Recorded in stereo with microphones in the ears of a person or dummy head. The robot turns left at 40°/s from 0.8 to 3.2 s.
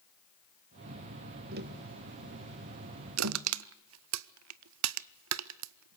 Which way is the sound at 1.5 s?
50° right (ahead or behind).